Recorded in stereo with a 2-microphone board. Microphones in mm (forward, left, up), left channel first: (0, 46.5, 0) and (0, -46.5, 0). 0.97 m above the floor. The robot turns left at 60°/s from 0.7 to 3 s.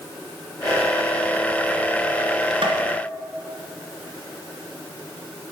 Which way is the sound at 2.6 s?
60° right (ahead or behind).